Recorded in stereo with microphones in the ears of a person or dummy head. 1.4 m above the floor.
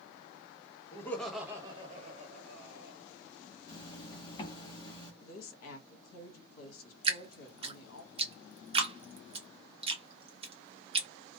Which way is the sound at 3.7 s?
25° left (ahead or behind).